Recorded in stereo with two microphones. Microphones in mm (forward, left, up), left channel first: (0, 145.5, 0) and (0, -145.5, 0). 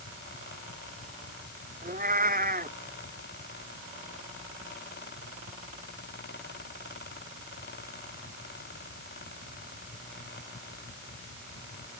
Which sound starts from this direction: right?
A cat meowing, at 1.8 s.